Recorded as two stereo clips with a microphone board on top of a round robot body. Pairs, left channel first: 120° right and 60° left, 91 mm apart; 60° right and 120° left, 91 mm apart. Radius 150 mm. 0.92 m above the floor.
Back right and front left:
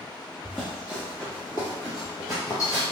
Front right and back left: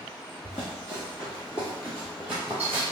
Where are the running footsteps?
40° right, 1.3 m; by 2.8 s 175° right, 1.1 m.